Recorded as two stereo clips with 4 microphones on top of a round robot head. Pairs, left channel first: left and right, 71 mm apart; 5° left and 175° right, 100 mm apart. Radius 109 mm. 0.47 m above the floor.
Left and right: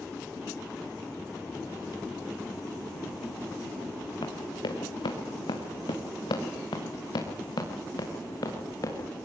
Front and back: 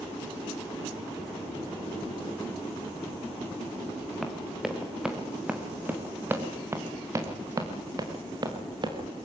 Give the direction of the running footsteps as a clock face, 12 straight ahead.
9 o'clock.